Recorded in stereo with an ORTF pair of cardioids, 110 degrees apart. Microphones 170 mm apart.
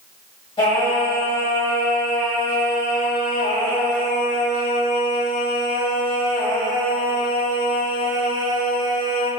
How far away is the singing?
About 1.2 m.